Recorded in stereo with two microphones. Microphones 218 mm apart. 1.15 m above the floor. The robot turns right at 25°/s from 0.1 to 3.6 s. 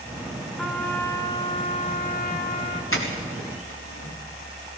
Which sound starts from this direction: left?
A doorbell, at 2.9 s.